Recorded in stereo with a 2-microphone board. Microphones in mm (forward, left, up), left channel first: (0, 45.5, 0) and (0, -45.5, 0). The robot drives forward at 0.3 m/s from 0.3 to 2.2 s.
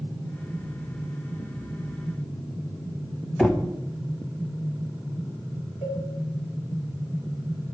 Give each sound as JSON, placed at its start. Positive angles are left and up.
{"t": 3.4, "sound": "knocking", "side_deg": 5, "distance_m": 0.6}
{"t": 5.8, "sound": "a cowbell", "side_deg": -20, "distance_m": 3.0}